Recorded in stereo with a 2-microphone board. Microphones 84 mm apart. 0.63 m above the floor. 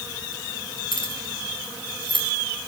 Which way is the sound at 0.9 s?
70° left (ahead or behind).